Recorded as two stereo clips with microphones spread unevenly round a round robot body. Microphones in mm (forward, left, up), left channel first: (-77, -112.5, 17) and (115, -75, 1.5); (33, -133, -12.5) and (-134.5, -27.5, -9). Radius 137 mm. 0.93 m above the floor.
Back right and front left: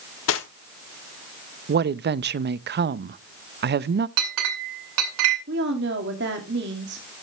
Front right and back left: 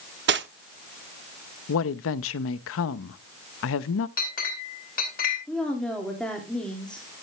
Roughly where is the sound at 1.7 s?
Ahead.